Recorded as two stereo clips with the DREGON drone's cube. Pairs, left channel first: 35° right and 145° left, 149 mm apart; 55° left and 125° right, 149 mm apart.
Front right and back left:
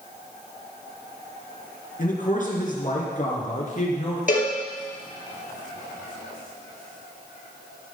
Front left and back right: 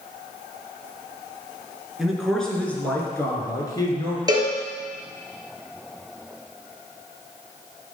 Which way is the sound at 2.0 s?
40° right.